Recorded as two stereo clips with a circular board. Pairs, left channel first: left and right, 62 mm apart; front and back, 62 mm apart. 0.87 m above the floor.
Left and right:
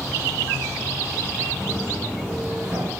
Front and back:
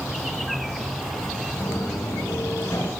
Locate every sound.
1.6 s footsteps: 10° right, 3.5 m; by 2.9 s 35° right, 4 m